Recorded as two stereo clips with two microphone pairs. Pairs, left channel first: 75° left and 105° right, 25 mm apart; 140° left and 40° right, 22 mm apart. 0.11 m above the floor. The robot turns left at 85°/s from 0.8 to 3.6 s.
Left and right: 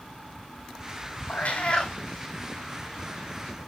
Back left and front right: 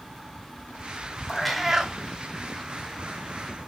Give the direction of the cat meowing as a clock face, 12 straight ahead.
10 o'clock.